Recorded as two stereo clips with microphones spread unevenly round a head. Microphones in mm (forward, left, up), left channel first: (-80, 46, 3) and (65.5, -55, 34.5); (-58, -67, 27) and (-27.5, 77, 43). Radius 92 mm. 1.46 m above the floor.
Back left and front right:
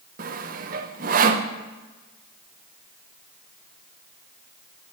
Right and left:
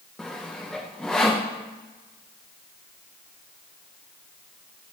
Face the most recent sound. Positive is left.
turn(degrees=-10)